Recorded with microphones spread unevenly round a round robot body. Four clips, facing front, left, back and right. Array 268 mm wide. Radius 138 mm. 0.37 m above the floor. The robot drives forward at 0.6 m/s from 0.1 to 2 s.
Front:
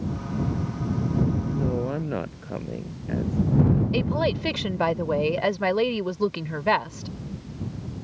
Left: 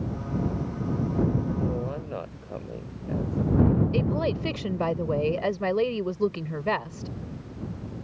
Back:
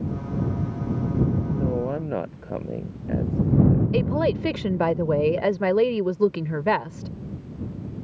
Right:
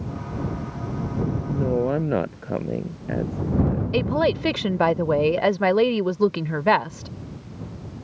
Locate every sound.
1.5 s a woman speaking: 85° right
3.9 s a woman speaking: 150° right